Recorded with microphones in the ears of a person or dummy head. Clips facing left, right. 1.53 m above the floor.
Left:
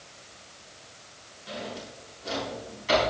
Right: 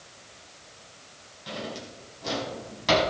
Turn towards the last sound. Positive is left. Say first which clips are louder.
# right 1 dB
turn(degrees=-80)